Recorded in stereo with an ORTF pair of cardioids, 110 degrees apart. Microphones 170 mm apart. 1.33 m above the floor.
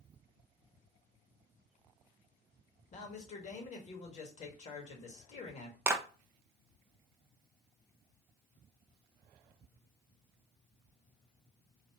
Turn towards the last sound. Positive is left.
turn(degrees=-15)